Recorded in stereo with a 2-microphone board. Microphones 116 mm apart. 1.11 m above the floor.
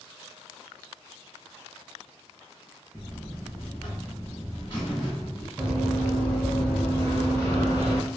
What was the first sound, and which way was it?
A buzzer, 45° left (ahead or behind).